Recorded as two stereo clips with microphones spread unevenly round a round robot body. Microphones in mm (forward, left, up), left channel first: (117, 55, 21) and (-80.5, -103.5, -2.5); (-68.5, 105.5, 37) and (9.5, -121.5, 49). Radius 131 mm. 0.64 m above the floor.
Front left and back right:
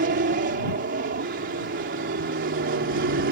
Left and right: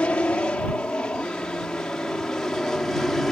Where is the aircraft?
170° right; by 3.3 s 165° right.